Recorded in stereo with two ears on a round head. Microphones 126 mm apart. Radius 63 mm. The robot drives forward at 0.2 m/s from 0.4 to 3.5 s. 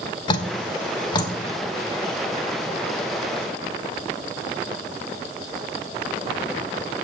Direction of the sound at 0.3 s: 35° left (ahead or behind).